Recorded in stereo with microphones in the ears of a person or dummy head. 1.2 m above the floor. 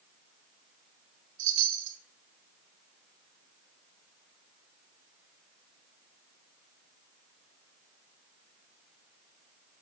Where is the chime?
65° right (ahead or behind), 1.1 m.